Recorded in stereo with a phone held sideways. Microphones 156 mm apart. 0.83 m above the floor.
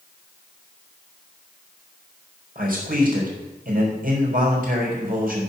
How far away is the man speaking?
About 4.5 m.